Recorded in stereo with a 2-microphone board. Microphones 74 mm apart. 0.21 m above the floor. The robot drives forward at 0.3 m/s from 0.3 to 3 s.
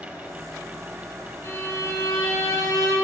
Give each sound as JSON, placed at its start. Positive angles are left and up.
{"t": 1.4, "sound": "a violin", "side_deg": 40, "distance_m": 3.0}